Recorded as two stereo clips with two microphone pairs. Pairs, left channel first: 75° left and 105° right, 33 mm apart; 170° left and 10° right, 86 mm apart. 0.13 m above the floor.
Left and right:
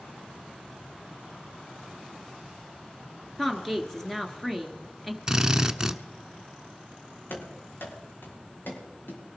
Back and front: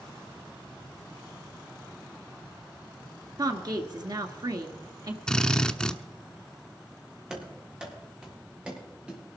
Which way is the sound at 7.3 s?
70° left.